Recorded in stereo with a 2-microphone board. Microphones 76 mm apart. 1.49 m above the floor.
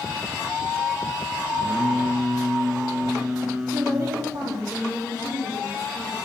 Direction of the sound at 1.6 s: 20° right (ahead or behind).